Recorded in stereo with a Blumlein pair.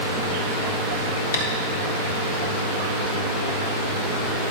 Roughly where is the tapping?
Ahead left.